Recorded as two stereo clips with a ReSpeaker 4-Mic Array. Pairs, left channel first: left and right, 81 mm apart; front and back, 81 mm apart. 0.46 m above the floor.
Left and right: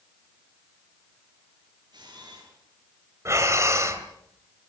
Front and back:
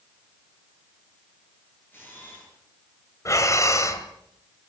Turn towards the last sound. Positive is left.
turn(degrees=-45)